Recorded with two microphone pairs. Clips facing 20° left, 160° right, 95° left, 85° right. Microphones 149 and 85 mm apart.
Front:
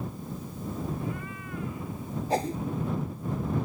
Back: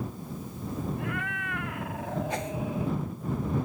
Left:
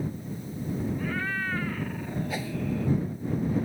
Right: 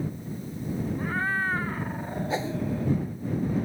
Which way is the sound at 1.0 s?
140° right.